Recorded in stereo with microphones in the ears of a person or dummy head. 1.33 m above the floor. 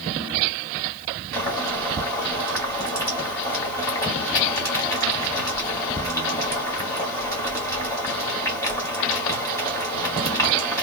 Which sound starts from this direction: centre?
Boiling, at 1.3 s.